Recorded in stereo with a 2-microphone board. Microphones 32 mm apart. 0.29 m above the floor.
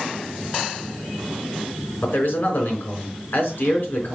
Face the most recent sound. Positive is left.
turn(degrees=70)  # may be behind; listen again after turning